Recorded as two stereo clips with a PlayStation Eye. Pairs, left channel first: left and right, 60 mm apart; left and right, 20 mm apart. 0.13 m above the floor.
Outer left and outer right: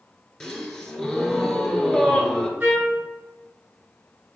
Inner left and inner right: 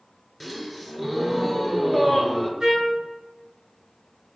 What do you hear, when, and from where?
0.4 s a gasp: 10° left (ahead or behind), 0.5 m
2.6 s a trumpet: 25° right (ahead or behind), 1.9 m